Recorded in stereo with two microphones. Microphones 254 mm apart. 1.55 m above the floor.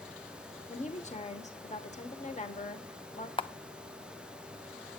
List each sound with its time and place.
0.7 s a woman speaking: 30° left (ahead or behind), 1.2 m
3.4 s a camera shutter: 20° left (ahead or behind), 0.5 m